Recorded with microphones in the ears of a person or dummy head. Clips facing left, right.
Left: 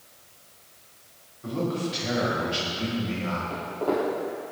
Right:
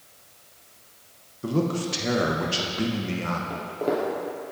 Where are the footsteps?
25° right (ahead or behind), 1.8 m.